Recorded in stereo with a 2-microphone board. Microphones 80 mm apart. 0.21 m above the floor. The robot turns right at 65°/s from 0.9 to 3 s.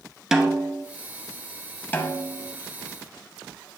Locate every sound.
0.3 s a snare drum: 5° right (ahead or behind), 0.8 m
1.9 s a snare drum: 25° left (ahead or behind), 0.9 m; by 2.5 s 30° left (ahead or behind), 0.9 m